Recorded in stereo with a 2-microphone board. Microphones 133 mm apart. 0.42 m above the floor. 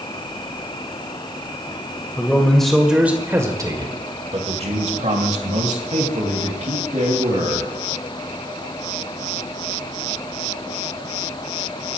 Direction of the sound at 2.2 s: 10° left (ahead or behind).